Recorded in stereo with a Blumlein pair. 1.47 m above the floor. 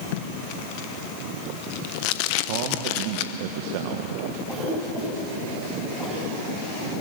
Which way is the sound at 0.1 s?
45° left.